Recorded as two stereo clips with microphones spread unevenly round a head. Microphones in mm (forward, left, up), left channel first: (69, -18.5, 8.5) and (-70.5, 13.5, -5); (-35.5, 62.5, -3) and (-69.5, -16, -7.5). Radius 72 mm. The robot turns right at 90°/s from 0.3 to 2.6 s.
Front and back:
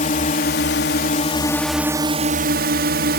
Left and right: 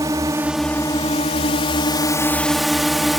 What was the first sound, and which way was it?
A drone, 50° right.